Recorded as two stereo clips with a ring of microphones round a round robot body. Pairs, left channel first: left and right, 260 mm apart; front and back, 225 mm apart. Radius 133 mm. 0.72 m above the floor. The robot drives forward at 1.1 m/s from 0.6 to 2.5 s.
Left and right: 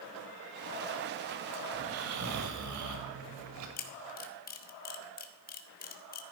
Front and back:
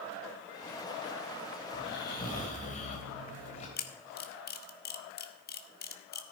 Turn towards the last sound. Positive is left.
turn(degrees=40)